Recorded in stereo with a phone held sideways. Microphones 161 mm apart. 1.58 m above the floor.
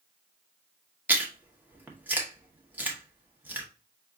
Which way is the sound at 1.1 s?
10° right (ahead or behind).